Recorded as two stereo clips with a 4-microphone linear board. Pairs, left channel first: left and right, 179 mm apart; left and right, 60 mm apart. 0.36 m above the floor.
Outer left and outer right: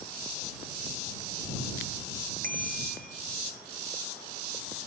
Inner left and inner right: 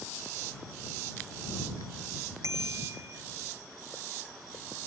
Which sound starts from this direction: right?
A bicycle bell, at 2.4 s.